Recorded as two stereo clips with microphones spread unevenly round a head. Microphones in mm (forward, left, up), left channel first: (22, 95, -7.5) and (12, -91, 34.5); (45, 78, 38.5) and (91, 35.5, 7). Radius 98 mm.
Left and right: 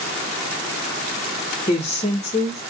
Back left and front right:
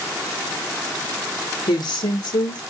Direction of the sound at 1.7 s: 135° left.